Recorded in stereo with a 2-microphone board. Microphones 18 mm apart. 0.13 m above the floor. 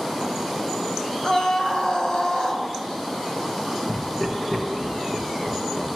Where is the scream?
40° left (ahead or behind), 2 m.